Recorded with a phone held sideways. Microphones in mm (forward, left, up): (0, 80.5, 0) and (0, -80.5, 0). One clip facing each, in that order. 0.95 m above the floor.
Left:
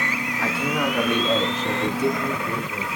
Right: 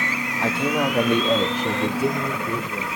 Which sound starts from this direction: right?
A man speaking, at 0.4 s.